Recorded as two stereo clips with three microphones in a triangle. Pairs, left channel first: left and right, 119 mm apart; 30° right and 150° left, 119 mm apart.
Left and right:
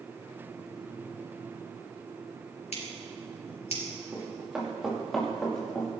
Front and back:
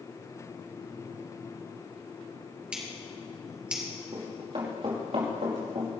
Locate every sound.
2.7 s scissors: 70° left, 4 m
4.1 s running footsteps: 165° right, 5.5 m; by 5.9 s 165° left, 5 m